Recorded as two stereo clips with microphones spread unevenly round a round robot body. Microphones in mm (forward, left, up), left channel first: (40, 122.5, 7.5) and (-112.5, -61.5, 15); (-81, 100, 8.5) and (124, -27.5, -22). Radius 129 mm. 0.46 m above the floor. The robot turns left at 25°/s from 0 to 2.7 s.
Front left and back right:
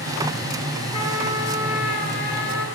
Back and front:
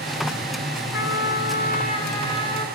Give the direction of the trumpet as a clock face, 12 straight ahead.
8 o'clock.